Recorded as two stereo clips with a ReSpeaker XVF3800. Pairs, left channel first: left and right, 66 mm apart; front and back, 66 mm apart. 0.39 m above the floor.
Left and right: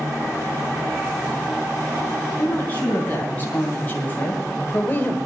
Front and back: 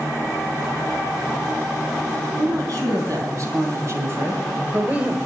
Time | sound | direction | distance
2.4 | a woman speaking | 155° left | 4.5 m